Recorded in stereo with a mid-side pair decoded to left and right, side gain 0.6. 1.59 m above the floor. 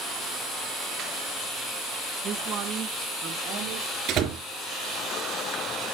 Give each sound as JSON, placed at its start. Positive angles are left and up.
{"t": 2.2, "sound": "a woman speaking", "azimuth_deg": -55, "distance_m": 1.8}
{"t": 4.1, "sound": "a door slam", "azimuth_deg": -60, "distance_m": 3.0}